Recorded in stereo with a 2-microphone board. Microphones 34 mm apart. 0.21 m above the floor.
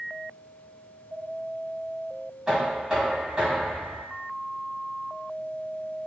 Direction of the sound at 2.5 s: 15° right (ahead or behind).